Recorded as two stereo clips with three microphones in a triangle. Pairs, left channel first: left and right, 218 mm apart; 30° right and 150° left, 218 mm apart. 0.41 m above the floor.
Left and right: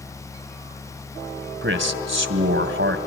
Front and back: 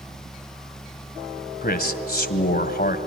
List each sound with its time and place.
1.6 s a man speaking: 70° right, 2.5 m